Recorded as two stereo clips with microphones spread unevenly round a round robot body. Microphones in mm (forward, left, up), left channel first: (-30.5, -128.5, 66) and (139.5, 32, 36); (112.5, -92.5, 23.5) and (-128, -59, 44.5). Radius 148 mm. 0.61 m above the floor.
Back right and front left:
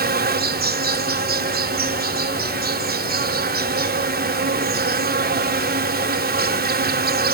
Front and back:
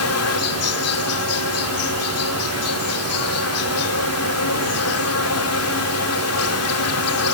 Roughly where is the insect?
Ahead.